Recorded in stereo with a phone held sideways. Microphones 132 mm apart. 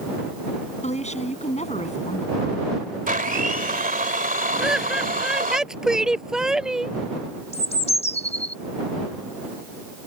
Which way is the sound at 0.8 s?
55° left (ahead or behind).